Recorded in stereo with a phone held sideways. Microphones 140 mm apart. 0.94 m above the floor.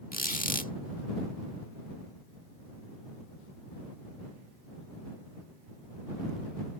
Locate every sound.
0.1 s a squeak: 80° left